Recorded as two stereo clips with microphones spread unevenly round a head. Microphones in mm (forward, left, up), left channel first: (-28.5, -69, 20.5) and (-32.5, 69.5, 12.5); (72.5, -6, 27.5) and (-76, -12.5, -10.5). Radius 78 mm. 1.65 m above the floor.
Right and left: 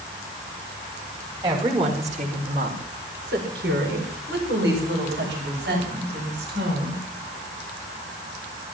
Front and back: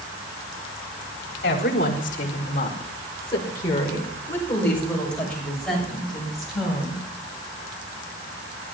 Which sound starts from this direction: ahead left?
A woman speaking, at 1.4 s.